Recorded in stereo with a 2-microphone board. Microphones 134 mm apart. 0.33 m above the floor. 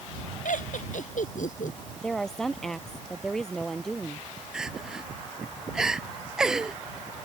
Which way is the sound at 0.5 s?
75° left (ahead or behind).